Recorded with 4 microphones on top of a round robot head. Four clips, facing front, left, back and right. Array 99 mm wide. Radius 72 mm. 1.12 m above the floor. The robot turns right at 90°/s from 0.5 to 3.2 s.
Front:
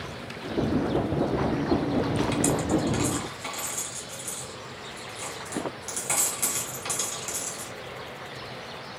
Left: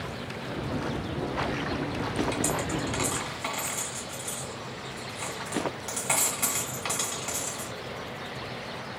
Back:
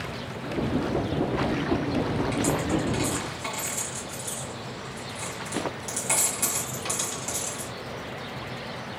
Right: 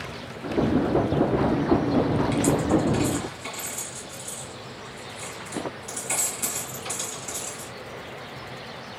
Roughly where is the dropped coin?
Ahead left.